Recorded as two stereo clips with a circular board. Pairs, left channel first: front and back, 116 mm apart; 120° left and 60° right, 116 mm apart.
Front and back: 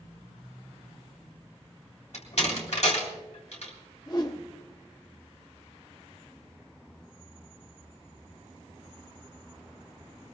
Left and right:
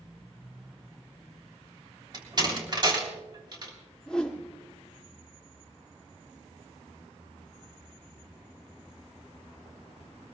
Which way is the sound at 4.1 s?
40° left.